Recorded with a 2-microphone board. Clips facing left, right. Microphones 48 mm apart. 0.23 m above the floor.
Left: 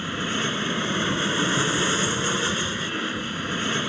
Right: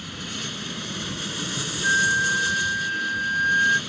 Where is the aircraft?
40° left (ahead or behind).